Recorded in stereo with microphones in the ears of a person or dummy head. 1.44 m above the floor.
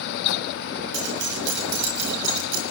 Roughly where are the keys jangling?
Right.